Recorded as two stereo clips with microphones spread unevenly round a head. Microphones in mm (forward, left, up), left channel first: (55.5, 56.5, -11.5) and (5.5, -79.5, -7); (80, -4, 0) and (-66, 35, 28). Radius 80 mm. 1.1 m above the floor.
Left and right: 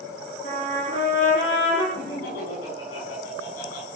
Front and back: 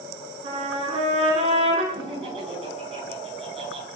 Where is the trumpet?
115° left, 5.5 m.